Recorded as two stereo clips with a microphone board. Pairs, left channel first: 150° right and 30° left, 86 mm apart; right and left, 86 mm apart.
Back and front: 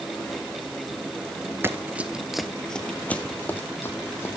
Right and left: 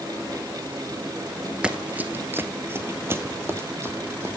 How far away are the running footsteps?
About 0.8 m.